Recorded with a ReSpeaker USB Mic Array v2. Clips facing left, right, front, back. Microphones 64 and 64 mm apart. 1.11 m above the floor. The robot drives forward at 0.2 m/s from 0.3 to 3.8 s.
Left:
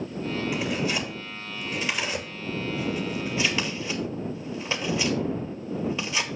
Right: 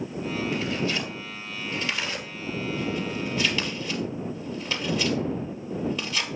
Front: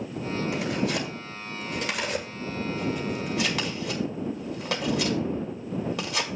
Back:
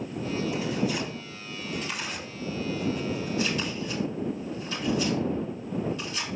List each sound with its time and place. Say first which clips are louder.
0.5 s tearing paper: left 1 dB, front 2 dB; 15° left, 2.5 m; by 6.3 s 20° left, 2.0 m